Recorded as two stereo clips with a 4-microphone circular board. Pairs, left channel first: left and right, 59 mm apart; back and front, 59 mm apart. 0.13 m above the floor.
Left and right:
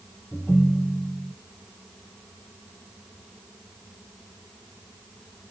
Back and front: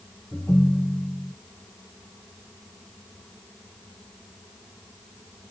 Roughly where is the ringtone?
Behind left.